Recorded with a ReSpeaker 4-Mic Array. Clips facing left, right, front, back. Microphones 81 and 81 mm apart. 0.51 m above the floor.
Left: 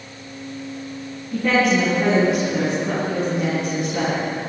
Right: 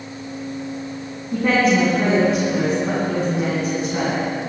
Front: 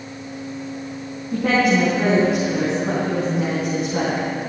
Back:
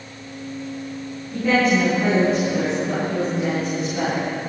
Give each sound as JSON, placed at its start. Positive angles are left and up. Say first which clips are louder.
{"t": 1.3, "sound": "a woman speaking", "louder": "right 1 dB, front 1 dB", "azimuth_deg": -30, "distance_m": 5.5}